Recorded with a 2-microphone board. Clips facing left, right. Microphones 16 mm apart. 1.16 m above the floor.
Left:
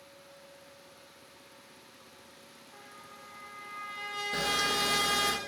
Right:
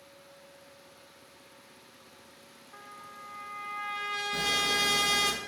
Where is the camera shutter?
50° left (ahead or behind), 0.6 m.